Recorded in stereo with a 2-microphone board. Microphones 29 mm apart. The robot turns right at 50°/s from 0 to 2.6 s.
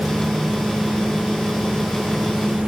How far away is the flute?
No flute in this recording.